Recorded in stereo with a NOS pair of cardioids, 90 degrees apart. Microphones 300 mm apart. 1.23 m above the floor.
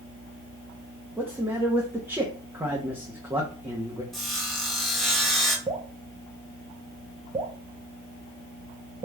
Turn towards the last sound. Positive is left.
turn(degrees=-20)